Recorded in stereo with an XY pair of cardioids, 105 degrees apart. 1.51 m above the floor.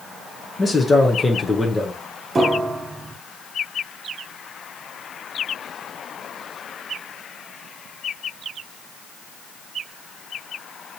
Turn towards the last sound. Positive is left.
turn(degrees=-30)